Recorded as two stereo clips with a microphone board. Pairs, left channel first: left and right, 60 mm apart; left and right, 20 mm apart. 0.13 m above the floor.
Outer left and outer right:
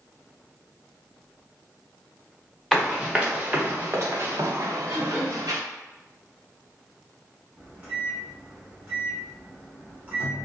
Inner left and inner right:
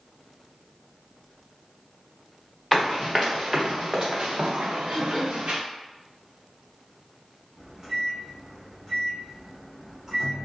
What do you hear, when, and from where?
2.7 s running footsteps: centre (ahead or behind), 1.0 m; by 5.6 s 85° right, 1.2 m
4.9 s throat clearing: 30° right (ahead or behind), 1.7 m
7.6 s a microwave: 25° right (ahead or behind), 1.2 m